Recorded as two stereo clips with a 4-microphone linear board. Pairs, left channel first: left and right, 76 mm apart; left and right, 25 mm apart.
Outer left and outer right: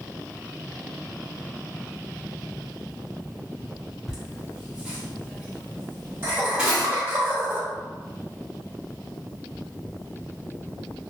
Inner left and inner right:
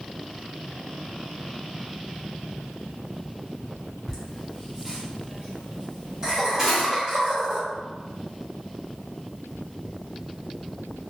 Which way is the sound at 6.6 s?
15° right (ahead or behind).